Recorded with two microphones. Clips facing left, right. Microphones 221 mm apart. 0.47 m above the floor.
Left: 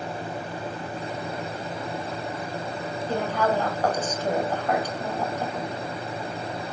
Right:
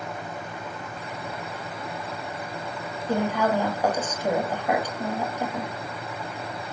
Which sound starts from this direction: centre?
A woman speaking, at 3.1 s.